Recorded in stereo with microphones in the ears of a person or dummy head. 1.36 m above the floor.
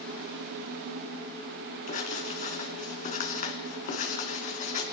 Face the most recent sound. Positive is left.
turn(degrees=40)  # may be behind; listen again after turning